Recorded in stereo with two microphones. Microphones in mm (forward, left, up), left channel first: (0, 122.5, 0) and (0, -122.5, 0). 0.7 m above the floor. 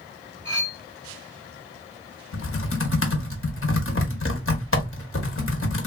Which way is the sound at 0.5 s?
5° right (ahead or behind).